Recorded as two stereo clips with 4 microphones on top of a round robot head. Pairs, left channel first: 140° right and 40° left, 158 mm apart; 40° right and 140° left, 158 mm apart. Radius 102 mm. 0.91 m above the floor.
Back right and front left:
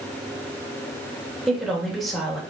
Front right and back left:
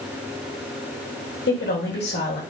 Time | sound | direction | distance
1.5 | a woman speaking | 50° right | 4 m